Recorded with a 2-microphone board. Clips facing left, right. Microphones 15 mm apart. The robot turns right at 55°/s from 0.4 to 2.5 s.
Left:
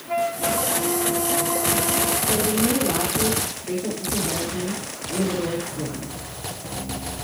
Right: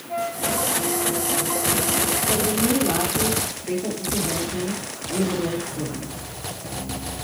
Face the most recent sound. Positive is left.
turn(degrees=-15)  # may be behind; listen again after turning